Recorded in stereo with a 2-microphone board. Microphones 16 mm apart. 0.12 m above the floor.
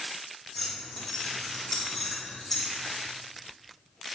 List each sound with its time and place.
0.6 s keys jangling: 20° left (ahead or behind), 3.5 m